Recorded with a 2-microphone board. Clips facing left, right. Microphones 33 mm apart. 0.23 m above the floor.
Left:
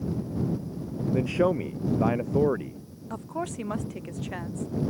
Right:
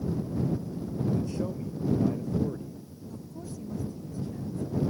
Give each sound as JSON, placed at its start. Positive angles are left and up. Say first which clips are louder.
{"t": 1.1, "sound": "a man speaking", "louder": "left 7 dB", "side_deg": 60}
{"t": 3.1, "sound": "a woman speaking", "louder": "left 10 dB", "side_deg": 85}